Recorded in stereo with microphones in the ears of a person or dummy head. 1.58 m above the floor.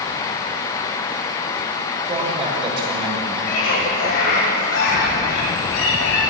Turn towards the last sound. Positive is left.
turn(degrees=80)